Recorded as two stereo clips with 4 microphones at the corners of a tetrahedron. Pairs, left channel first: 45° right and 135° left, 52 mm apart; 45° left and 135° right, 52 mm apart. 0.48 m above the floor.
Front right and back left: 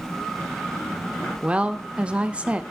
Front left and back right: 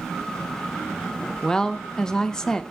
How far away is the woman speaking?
About 0.7 m.